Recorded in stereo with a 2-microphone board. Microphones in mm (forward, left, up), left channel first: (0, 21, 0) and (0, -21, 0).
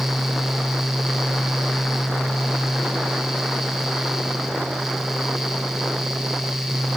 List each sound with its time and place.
Only background noise.